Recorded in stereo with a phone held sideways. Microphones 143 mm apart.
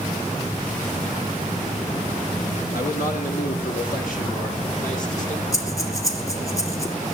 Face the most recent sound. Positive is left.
turn(degrees=25)  # may be behind; listen again after turning